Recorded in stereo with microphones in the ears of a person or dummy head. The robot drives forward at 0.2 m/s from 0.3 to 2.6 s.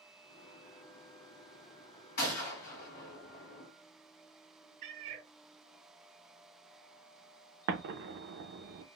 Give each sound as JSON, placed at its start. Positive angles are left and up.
{"t": 2.2, "sound": "a gunshot", "side_deg": 50, "distance_m": 1.6}
{"t": 4.8, "sound": "a cat meowing", "side_deg": -50, "distance_m": 1.1}
{"t": 7.7, "sound": "an explosion", "side_deg": -60, "distance_m": 0.6}